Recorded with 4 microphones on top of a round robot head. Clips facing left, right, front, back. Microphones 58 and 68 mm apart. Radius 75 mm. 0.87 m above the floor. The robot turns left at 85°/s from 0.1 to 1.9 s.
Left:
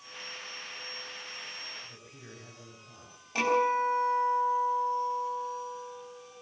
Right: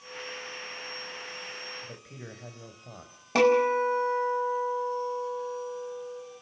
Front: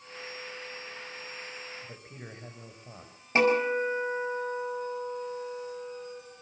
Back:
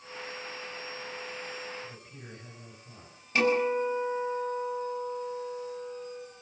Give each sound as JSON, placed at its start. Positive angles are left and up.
{"t": 1.8, "sound": "a man speaking", "azimuth_deg": -55, "distance_m": 5.0}
{"t": 3.4, "sound": "a guitar", "azimuth_deg": -70, "distance_m": 5.0}